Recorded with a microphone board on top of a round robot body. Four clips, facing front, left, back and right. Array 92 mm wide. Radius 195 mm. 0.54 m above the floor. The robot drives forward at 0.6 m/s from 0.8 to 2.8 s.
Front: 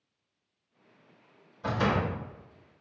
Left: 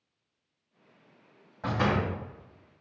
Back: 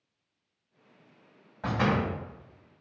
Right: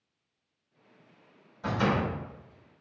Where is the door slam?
145° left, 3.5 m; by 2.1 s 150° left, 4 m.